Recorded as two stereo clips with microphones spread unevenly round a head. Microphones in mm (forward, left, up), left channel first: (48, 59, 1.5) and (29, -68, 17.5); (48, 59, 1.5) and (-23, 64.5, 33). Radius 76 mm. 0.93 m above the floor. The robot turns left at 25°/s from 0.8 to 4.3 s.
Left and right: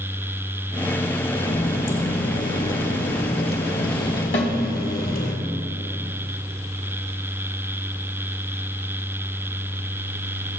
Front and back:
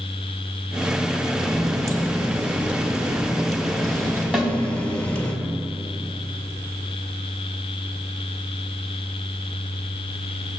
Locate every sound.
1.4 s a running tap: 140° left, 1.9 m; by 5.3 s 70° left, 1.9 m
4.3 s a snare drum: 95° left, 1.3 m